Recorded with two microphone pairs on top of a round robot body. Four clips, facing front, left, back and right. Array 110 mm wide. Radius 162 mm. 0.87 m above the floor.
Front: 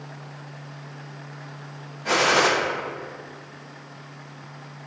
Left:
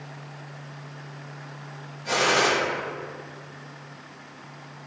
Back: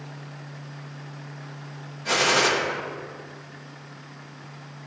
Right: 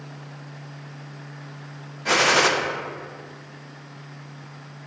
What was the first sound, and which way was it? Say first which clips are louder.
A gunshot: right 3 dB, front 2 dB; 90° right.